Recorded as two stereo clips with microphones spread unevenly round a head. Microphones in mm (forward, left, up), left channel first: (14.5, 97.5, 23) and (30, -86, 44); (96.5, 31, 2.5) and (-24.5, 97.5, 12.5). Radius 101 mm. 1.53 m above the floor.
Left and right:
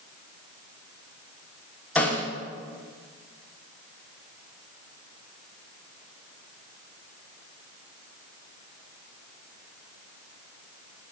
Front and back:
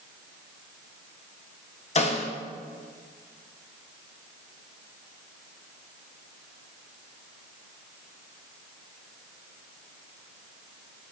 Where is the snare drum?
10° left, 1.6 m.